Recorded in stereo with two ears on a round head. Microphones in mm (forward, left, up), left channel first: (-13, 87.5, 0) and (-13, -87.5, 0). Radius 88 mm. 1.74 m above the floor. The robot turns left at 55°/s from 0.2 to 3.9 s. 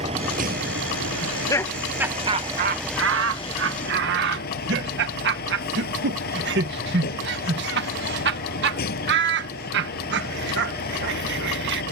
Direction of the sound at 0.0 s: 30° right.